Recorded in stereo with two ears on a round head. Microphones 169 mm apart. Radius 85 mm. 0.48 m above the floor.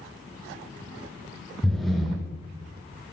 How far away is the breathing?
About 1.6 m.